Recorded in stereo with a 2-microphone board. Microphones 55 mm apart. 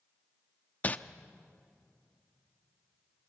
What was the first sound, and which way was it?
Crumpling, 30° left (ahead or behind).